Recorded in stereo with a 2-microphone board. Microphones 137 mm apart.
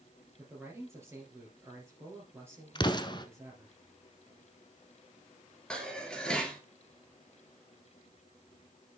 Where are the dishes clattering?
5° left (ahead or behind), 1.7 m.